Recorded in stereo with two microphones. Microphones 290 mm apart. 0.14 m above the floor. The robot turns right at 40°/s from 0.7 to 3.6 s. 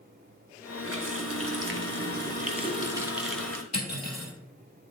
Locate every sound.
0.8 s a running tap: 100° right, 1.2 m; by 3.6 s 10° left, 1.2 m
3.7 s cutlery clinking: 65° left (ahead or behind), 2 m